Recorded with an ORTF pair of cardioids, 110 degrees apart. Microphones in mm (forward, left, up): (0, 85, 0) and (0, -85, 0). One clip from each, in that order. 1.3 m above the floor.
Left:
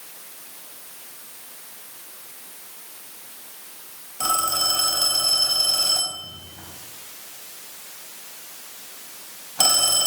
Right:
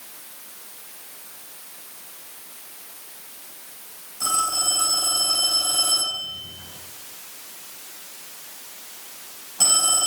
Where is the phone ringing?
60° left, 6.5 m.